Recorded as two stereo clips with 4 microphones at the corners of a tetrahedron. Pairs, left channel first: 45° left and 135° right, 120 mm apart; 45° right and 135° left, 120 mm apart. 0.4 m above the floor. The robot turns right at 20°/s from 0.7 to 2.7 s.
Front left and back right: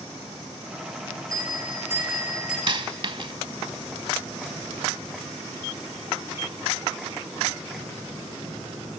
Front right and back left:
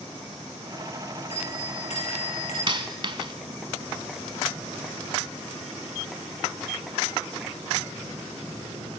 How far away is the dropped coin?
About 0.7 m.